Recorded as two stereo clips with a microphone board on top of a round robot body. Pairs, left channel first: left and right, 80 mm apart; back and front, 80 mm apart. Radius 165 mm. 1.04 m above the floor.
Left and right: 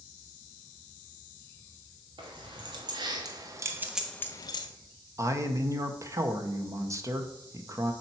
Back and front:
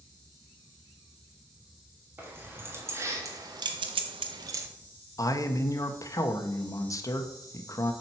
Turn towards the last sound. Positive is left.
turn(degrees=-135)